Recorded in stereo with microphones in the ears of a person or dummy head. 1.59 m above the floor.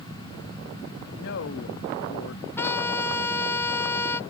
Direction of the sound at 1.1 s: 65° left (ahead or behind).